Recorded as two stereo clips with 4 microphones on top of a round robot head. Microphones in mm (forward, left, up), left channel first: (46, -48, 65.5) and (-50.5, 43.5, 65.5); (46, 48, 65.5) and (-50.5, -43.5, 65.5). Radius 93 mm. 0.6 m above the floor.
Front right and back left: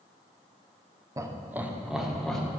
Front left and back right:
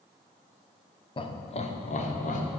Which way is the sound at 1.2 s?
80° left.